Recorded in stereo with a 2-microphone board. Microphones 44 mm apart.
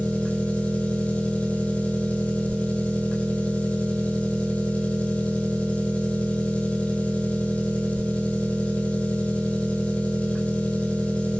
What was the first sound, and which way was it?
An engine running, 35° left (ahead or behind).